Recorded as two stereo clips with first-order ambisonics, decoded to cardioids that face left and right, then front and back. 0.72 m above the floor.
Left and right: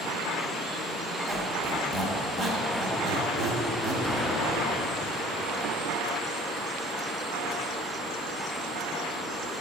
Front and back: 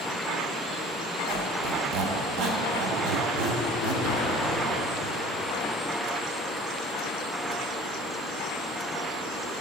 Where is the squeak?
170° right, 1.2 m.